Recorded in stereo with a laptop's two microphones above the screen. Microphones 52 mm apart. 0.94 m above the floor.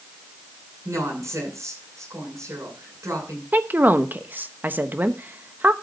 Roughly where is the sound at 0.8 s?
Right.